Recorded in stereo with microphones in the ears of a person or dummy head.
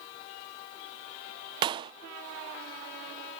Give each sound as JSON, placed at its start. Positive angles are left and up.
{"t": 1.6, "sound": "a clap", "side_deg": -25}